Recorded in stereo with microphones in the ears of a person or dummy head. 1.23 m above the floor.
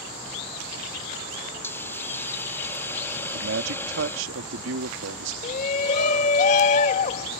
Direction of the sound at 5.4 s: 45° left (ahead or behind).